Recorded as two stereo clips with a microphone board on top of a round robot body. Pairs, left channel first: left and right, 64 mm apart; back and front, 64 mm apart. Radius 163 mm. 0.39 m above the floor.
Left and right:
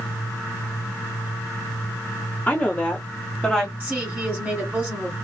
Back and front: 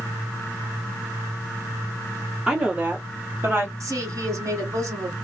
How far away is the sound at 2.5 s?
About 1.5 m.